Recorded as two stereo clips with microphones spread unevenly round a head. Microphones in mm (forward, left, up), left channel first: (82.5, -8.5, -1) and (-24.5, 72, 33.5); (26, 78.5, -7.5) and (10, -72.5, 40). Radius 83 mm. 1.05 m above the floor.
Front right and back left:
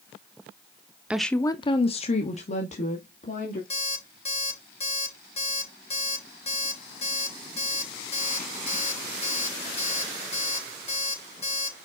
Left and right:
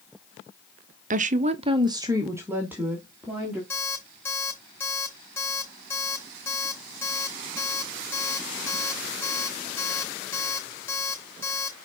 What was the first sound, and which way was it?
A woman speaking, 115° right.